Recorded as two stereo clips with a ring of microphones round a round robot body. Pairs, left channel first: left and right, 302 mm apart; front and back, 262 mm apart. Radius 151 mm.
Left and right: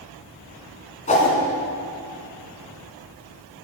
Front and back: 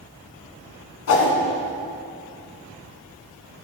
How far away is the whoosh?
About 1.8 m.